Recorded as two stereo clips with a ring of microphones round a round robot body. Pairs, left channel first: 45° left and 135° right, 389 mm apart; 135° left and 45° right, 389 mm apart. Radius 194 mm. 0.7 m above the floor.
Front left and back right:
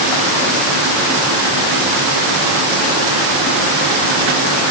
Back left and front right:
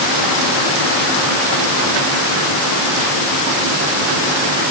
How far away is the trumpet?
I don't hear a trumpet.